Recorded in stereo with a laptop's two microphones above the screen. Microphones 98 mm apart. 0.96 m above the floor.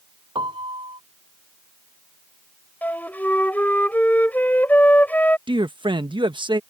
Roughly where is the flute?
Centre.